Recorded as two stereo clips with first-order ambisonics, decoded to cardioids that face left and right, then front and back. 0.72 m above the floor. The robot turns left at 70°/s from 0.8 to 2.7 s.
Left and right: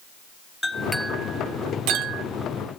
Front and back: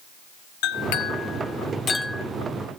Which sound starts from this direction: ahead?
A clink, at 0.6 s.